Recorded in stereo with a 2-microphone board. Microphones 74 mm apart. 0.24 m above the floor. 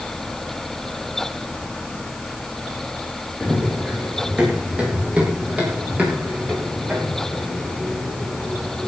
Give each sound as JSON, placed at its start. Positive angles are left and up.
{"t": 3.4, "sound": "running footsteps", "side_deg": -10, "distance_m": 5.5}